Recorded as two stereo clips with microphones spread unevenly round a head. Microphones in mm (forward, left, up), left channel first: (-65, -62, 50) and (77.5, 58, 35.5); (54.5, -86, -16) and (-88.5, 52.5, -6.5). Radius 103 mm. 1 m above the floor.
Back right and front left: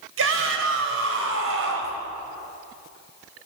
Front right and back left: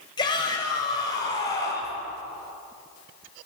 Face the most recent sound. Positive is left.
turn(degrees=30)